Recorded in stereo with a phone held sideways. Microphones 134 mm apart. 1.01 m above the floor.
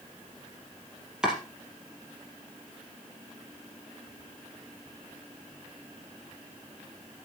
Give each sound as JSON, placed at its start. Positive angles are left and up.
{"t": 1.2, "sound": "chopping", "side_deg": -5, "distance_m": 4.0}